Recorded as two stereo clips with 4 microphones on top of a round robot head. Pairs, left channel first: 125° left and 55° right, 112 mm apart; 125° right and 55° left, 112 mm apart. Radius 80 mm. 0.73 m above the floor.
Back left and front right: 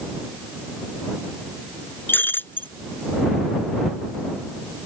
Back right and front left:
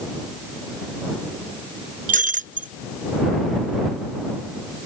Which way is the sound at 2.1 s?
50° left.